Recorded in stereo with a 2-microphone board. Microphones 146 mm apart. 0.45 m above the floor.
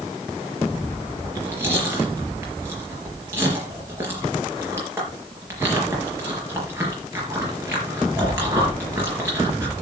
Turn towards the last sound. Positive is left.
turn(degrees=-15)  # may be behind; listen again after turning